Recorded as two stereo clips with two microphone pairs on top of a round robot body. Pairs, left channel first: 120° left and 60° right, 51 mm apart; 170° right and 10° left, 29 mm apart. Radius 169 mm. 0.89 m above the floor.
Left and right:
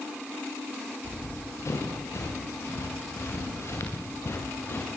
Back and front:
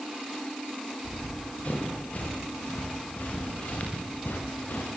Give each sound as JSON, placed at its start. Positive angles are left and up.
{"t": 1.0, "sound": "running footsteps", "azimuth_deg": 140, "distance_m": 7.5}